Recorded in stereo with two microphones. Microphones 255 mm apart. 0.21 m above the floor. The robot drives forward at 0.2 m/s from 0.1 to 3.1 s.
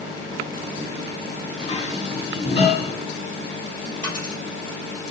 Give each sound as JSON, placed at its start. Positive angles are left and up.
{"t": 1.6, "sound": "dishes clattering", "side_deg": 30, "distance_m": 1.4}
{"t": 4.0, "sound": "a dropped coin", "side_deg": -50, "distance_m": 2.5}